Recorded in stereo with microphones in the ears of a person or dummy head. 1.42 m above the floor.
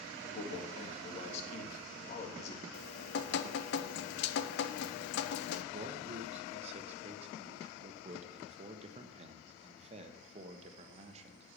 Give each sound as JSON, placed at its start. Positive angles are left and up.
{"t": 0.2, "sound": "a man speaking", "side_deg": 45, "distance_m": 2.5}
{"t": 2.7, "sound": "dripping", "side_deg": 65, "distance_m": 0.9}
{"t": 5.7, "sound": "a man speaking", "side_deg": -35, "distance_m": 1.3}